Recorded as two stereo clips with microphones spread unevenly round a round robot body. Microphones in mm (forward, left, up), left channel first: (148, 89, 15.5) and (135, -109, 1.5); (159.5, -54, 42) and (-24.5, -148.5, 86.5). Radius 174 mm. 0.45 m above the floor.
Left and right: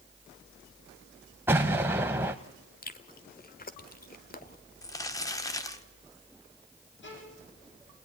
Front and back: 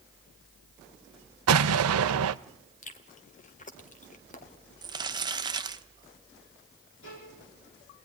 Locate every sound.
1.5 s an explosion: 175° right, 0.6 m
2.8 s chewing: 55° left, 1.8 m
4.8 s crumpling: 140° left, 1.1 m
7.0 s a violin: 65° left, 9 m